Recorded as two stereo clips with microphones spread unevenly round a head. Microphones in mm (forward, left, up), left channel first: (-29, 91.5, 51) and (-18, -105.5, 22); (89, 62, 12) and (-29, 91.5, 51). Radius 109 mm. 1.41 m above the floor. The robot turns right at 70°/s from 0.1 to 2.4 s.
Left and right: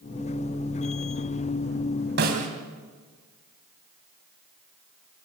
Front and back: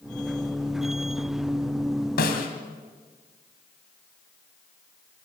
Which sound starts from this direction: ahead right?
A snare drum, at 2.2 s.